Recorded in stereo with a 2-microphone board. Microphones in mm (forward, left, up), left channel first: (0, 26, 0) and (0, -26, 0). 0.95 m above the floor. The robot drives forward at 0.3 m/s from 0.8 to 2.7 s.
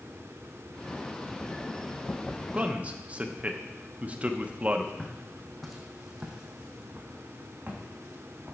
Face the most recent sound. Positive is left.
turn(degrees=-45)  # may be behind; listen again after turning